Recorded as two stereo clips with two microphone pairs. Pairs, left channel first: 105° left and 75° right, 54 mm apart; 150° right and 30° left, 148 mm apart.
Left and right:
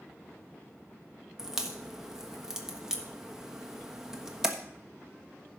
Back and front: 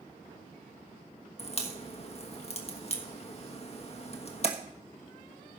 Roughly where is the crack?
Behind right.